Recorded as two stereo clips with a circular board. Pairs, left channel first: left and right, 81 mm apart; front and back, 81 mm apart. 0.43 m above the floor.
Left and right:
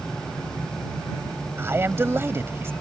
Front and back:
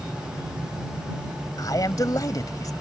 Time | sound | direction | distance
1.6 | a man speaking | 35° right | ?